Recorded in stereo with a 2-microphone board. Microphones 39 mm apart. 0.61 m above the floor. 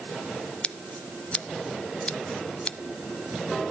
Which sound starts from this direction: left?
Scissors, at 0.6 s.